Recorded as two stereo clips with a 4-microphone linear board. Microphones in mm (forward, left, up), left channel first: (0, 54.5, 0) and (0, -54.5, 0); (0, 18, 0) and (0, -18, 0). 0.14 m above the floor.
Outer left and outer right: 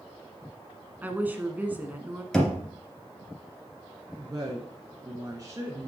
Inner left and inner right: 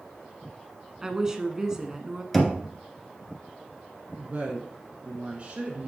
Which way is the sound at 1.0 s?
15° right (ahead or behind).